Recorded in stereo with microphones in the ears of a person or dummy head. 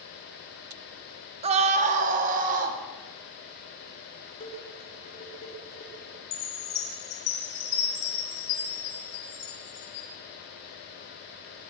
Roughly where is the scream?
Right.